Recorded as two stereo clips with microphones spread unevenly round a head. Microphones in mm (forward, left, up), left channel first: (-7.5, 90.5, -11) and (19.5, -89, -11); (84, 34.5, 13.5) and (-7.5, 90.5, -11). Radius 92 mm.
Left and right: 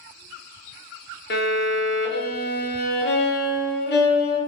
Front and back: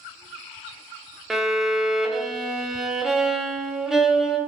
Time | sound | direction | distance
1.3 | a violin | 65° left | 0.5 m